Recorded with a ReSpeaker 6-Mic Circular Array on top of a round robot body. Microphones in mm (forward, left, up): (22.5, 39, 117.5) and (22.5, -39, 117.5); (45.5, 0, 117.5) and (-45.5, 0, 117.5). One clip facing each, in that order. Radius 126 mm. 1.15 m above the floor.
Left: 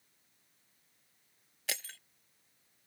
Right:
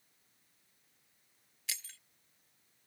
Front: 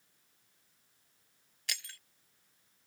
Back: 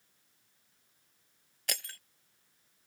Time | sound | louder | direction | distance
1.7 | breaking glass | left 6 dB, back 4 dB | 130° left | ?